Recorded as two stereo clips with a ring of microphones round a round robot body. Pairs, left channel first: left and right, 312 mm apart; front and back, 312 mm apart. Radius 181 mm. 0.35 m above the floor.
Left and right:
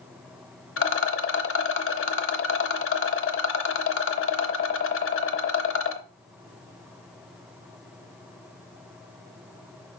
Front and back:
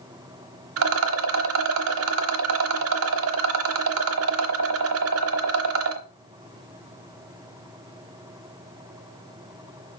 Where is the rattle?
140° left, 0.7 m.